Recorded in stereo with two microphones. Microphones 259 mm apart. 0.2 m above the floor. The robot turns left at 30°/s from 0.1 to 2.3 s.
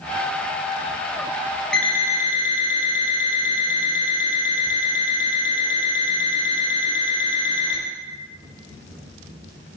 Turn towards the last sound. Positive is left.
turn(degrees=20)  # may be behind; listen again after turning